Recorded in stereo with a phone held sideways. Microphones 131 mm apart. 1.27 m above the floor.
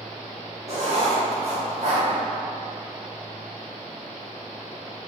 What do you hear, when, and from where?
0.7 s writing: 50° right (ahead or behind), 0.6 m